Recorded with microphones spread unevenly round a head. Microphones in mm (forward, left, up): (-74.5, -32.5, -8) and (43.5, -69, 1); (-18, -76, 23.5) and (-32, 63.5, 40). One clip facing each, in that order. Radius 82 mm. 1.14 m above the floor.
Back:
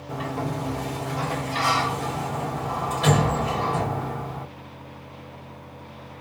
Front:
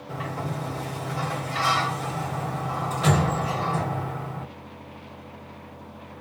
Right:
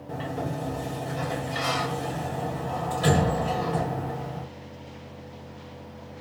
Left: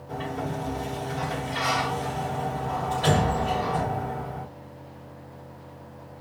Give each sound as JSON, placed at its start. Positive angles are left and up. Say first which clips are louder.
{"t": 0.1, "sound": "a sliding door", "louder": "back 3 dB, even", "azimuth_deg": -125, "distance_m": 1.8}